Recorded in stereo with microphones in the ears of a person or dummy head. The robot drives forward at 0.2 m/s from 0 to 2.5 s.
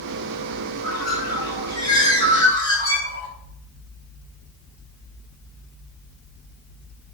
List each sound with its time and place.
0.8 s a bird: 30° left (ahead or behind), 3.5 m; by 3.3 s 25° left (ahead or behind), 4 m